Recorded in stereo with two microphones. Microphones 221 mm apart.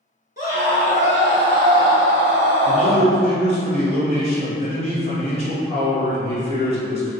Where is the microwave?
No microwave in this recording.